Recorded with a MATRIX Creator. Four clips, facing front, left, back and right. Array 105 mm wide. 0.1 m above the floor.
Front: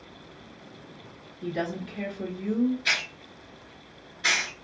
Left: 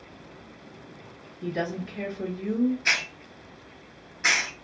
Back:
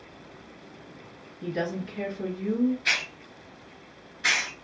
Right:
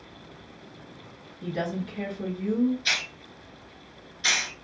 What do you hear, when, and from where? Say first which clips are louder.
1.4 s a woman speaking: even, back 1 dB; 135° left, 1.6 m
2.9 s a hiss: left 3 dB, even; 100° left, 0.7 m